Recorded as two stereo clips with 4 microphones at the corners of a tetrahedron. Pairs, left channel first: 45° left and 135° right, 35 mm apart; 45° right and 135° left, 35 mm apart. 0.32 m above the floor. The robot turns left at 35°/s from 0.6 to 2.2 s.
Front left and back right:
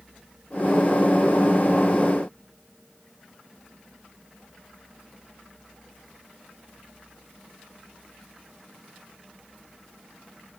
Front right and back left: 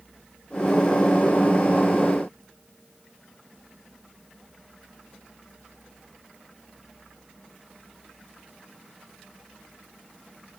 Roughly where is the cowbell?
No cowbell in this recording.